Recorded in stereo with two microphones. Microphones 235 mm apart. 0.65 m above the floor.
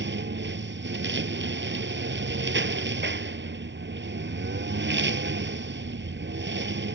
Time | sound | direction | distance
0.0 | a lawn mower | 50° right (ahead or behind) | ?